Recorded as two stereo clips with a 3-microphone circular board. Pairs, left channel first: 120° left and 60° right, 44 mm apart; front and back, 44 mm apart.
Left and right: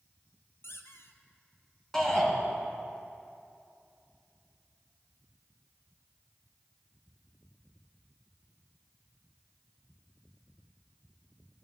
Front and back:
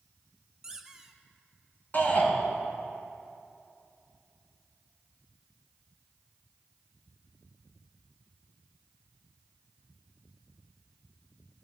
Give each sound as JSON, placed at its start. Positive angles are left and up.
{"t": 0.6, "sound": "a squeak", "azimuth_deg": 100, "distance_m": 1.1}
{"t": 1.9, "sound": "a shout", "azimuth_deg": 40, "distance_m": 3.5}